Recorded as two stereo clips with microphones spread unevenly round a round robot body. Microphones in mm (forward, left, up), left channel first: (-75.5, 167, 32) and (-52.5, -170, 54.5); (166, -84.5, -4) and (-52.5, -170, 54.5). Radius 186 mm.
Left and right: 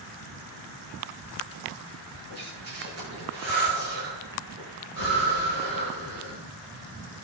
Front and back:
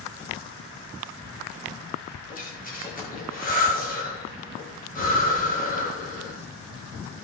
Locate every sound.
2.3 s breathing: 35° right, 8.5 m